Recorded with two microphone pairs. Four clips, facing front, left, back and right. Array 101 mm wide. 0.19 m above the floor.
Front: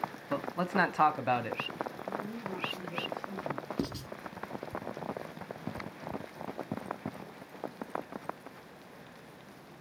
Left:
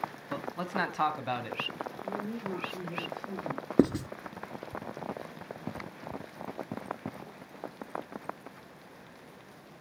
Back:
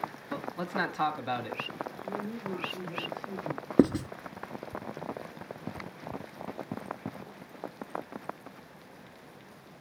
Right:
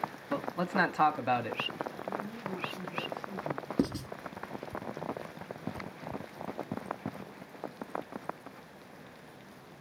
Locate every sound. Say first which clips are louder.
0.3 s a man speaking: right 4 dB, front 4 dB; 25° right, 1.1 m
2.0 s a woman speaking: left 2 dB, back 2 dB; 110° left, 7 m
3.8 s writing: left 7 dB, back 17 dB; 150° left, 0.5 m